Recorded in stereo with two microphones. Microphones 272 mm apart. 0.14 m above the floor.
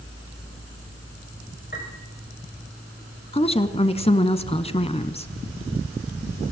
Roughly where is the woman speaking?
Left.